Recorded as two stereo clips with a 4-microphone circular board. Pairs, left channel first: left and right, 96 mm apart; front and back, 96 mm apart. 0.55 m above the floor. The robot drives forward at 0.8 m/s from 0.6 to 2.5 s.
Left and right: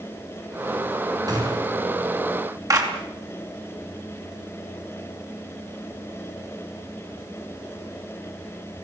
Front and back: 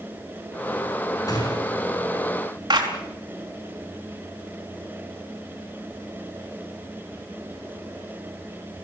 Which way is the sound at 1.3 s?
45° right.